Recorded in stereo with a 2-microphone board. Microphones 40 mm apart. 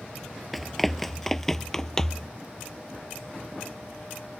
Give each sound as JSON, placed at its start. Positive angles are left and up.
{"t": 0.5, "sound": "running footsteps", "side_deg": 0}